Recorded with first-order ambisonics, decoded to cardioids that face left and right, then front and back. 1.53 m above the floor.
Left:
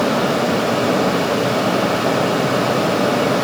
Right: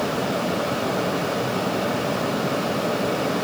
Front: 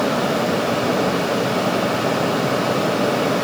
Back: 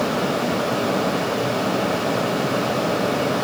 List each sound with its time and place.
Only background noise.